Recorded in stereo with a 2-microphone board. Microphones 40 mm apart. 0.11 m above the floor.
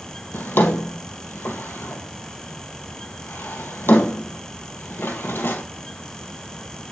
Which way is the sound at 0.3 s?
70° left (ahead or behind).